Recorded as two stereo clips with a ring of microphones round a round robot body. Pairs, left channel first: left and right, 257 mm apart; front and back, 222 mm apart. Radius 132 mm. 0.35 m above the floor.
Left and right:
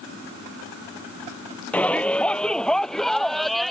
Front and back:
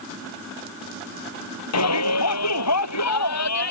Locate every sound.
1.7 s a shout: 5° left; by 3.7 s straight ahead